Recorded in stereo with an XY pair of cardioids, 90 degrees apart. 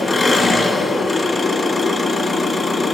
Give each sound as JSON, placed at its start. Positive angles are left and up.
{"t": 0.0, "sound": "an engine running", "azimuth_deg": 30, "distance_m": 1.8}